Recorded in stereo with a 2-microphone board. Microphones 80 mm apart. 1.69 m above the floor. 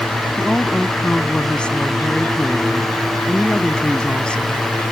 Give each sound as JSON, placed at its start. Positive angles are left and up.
{"t": 0.4, "sound": "a woman speaking", "side_deg": 15}